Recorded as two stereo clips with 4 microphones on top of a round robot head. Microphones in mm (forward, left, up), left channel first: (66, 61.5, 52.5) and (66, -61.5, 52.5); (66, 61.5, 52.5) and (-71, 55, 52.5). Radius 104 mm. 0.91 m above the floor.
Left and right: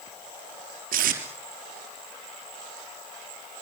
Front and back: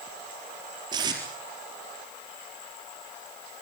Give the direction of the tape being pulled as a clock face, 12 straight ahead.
4 o'clock.